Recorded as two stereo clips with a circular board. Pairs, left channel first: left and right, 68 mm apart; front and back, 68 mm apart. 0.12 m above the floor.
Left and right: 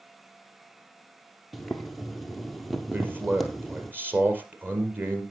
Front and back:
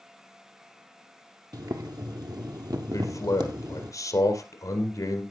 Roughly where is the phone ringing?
No phone ringing in this recording.